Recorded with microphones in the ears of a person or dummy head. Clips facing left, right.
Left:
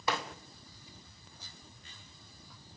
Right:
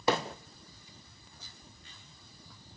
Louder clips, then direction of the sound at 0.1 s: Right 6 dB; 30° right (ahead or behind).